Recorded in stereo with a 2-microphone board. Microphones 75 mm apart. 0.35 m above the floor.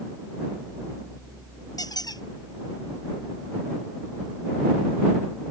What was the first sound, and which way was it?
A squeak, 60° left (ahead or behind).